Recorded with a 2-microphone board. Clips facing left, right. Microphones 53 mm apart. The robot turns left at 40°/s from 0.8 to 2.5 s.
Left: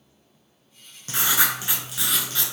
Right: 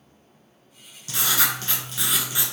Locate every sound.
1.1 s writing: 40° left, 0.6 m; by 2.5 s 15° right, 0.6 m